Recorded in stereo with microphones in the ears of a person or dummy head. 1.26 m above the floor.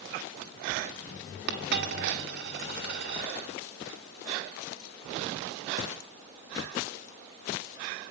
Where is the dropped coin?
60° right (ahead or behind), 1.8 m.